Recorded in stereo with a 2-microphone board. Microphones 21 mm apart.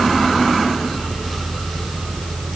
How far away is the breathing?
No breathing in this recording.